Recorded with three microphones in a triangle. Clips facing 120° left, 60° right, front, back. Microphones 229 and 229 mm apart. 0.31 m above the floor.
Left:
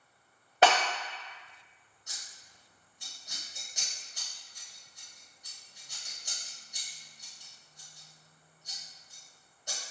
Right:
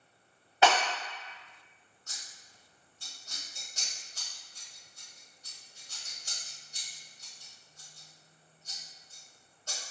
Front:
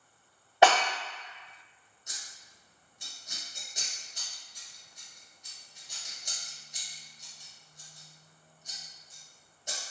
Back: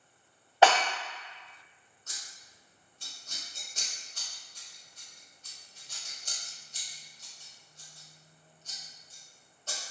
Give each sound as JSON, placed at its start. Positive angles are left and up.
{"t": 0.6, "sound": "breaking glass", "azimuth_deg": 75, "distance_m": 1.4}
{"t": 2.1, "sound": "scissors", "azimuth_deg": 65, "distance_m": 0.7}